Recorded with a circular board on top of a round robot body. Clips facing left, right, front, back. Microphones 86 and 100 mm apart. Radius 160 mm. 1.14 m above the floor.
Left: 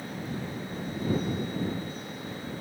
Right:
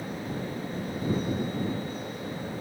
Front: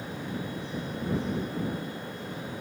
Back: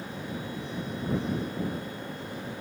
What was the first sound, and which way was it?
Only background noise.